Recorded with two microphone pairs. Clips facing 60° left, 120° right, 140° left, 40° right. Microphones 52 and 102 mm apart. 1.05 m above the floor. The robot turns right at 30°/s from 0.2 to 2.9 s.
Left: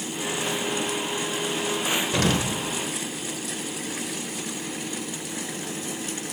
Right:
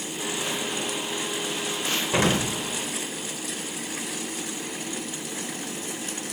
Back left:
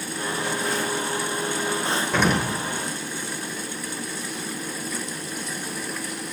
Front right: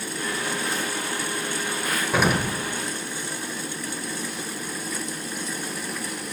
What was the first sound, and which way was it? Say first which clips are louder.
An explosion: right 3 dB, front right 1 dB; 120° right.